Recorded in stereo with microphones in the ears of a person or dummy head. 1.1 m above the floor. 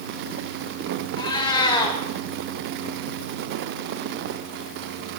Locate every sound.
1.2 s a cat meowing: 25° left (ahead or behind), 1.3 m